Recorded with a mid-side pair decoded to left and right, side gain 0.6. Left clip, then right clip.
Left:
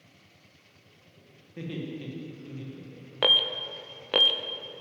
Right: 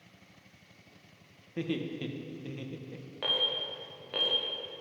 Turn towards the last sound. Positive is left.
turn(degrees=55)